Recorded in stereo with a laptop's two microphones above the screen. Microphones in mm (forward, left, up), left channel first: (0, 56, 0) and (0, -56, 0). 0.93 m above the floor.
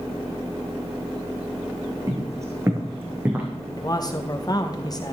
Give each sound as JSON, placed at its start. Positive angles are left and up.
{"t": 2.1, "sound": "footsteps", "side_deg": -30, "distance_m": 3.5}
{"t": 3.8, "sound": "a man speaking", "side_deg": 35, "distance_m": 0.8}